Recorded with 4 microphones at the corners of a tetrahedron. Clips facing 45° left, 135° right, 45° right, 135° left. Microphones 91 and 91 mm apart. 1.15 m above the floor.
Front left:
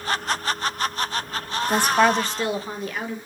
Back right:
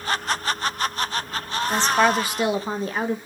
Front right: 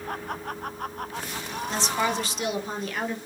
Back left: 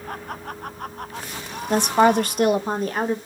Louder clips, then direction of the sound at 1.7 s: Front left 1 dB, back left 11 dB; 115° left.